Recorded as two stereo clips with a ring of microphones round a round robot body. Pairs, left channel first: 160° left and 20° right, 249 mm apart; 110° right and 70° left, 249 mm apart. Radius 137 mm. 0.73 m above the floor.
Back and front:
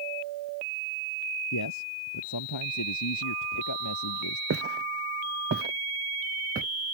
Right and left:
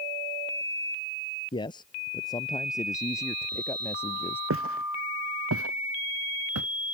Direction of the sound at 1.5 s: 175° left.